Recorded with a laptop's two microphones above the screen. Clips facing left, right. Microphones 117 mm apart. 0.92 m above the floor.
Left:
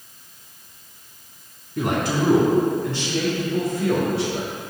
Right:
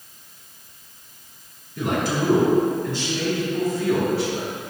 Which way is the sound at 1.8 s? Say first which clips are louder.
Left 1 dB; 70° left (ahead or behind).